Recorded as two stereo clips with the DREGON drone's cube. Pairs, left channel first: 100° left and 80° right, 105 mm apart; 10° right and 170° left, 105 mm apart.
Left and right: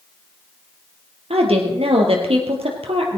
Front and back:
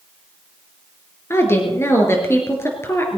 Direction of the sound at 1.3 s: 75° right.